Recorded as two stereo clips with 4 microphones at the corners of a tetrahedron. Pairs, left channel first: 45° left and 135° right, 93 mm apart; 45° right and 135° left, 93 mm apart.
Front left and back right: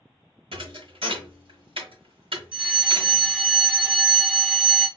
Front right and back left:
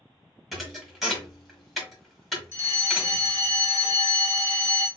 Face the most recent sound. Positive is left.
turn(degrees=-70)